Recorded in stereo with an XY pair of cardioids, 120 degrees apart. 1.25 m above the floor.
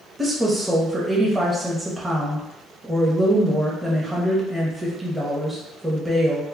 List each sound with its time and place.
0.2 s a woman speaking: 5° right, 0.7 m